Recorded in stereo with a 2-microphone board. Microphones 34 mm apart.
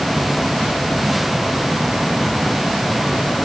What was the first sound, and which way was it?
Only background noise.